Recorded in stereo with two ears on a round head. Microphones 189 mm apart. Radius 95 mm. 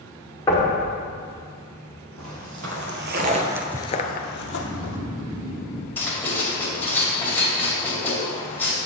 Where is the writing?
10° left (ahead or behind), 2.5 m.